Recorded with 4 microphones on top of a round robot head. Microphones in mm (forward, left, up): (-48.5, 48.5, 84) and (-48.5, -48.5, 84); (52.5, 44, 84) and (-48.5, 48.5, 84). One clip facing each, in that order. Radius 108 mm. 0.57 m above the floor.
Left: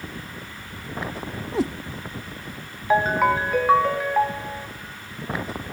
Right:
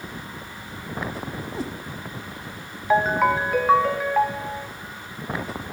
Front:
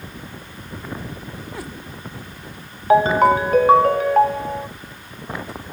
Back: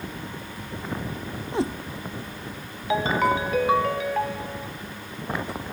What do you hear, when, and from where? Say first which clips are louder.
1.5 s a cat meowing: left 9 dB, back 10 dB; 110° left, 0.9 m
2.9 s a ringtone: even, front 9 dB; straight ahead, 0.7 m